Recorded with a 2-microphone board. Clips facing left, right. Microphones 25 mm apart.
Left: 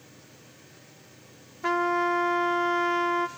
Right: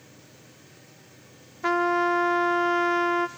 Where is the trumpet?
20° right (ahead or behind), 0.8 m.